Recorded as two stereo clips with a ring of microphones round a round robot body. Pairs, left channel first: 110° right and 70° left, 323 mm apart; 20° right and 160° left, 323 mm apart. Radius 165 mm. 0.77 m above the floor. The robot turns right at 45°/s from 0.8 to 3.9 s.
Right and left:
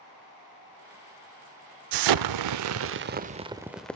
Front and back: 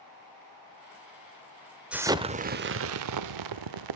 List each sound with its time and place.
1.9 s an explosion: 70° left, 0.6 m; by 4.0 s 160° left, 0.6 m